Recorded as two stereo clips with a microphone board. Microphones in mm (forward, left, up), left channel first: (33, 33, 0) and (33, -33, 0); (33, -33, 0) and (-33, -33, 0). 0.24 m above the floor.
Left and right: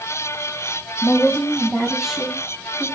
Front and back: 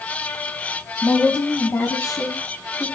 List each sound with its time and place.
1.0 s a woman speaking: 75° left, 1.2 m; by 2.9 s 15° right, 2.5 m